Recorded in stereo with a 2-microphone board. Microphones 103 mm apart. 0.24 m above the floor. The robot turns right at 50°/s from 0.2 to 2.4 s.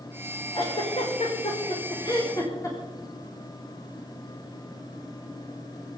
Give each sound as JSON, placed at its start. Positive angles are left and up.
{"t": 0.5, "sound": "a giggle", "side_deg": 55, "distance_m": 5.5}